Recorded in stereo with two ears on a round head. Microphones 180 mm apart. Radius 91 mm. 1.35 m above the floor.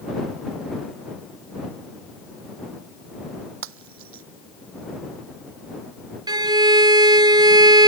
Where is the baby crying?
No baby crying in this recording.